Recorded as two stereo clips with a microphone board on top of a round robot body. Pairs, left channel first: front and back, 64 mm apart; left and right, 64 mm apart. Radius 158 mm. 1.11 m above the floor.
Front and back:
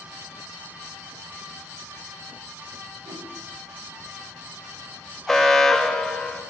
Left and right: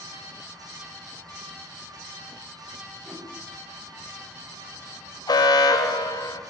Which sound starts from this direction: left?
An alarm, at 5.3 s.